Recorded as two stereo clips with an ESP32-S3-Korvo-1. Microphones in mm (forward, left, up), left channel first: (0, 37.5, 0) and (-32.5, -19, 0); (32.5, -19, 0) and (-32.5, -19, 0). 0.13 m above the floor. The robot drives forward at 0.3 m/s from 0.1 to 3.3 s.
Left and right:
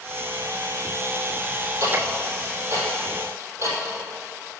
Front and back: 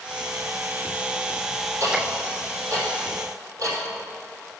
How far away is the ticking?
About 3 m.